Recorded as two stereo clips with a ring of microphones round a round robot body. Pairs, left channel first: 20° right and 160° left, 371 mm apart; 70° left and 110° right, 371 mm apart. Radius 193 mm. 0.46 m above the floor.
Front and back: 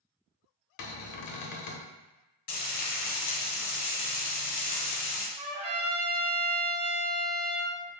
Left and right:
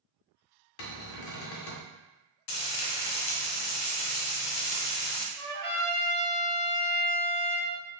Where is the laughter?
I don't hear laughter.